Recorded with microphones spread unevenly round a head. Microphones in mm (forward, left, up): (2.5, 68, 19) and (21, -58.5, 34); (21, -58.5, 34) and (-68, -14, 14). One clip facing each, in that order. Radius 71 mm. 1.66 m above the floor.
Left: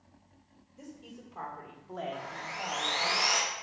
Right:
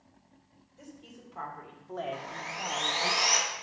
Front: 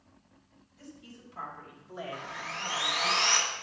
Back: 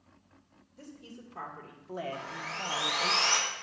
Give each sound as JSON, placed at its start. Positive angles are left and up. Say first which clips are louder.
{"t": 0.8, "sound": "a woman speaking", "louder": "left 2 dB, back 2 dB", "azimuth_deg": 180, "distance_m": 3.0}
{"t": 2.1, "sound": "sawing", "louder": "right 1 dB, even", "azimuth_deg": -145, "distance_m": 2.0}